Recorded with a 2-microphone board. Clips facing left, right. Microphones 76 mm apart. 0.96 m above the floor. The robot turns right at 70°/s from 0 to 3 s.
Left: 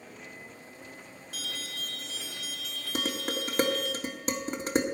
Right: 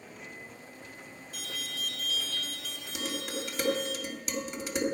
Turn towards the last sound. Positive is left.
turn(degrees=45)  # may be behind; listen again after turning